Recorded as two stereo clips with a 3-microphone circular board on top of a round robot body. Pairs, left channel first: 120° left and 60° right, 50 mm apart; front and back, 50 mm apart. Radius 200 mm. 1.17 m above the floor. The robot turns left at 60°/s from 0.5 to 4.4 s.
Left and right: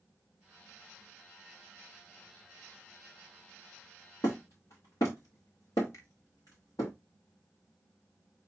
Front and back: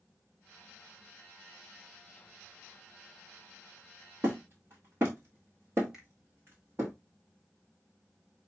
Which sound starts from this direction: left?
A finger snap, at 5.9 s.